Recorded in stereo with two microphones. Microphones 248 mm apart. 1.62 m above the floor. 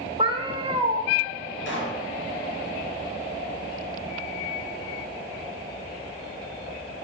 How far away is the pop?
About 4.5 m.